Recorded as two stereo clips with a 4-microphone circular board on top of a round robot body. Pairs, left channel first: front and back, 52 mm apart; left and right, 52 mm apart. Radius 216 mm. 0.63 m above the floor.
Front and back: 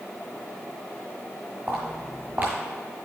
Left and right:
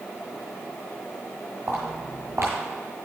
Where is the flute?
I don't hear a flute.